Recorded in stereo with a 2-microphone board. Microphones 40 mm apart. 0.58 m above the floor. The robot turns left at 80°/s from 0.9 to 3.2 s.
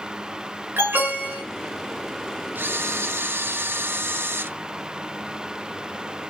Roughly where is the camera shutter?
Ahead right.